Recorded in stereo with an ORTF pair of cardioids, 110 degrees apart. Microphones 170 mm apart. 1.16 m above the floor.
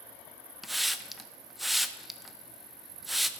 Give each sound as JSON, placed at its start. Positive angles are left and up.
{"t": 0.6, "sound": "a hiss", "azimuth_deg": 0, "distance_m": 0.6}